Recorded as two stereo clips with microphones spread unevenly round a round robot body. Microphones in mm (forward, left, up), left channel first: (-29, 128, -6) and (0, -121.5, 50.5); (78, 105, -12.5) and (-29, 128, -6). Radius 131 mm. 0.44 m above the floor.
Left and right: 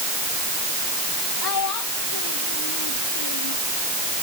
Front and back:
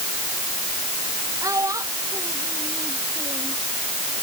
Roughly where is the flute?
No flute in this recording.